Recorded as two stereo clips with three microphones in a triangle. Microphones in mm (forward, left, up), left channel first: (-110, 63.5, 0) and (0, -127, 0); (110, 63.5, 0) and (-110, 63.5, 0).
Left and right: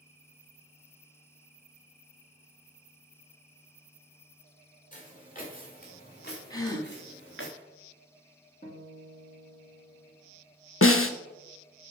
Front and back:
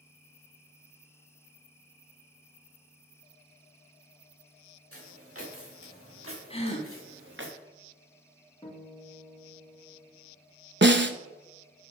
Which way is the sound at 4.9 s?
175° left.